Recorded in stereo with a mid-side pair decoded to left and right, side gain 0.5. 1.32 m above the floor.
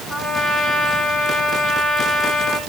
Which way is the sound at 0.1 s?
25° left.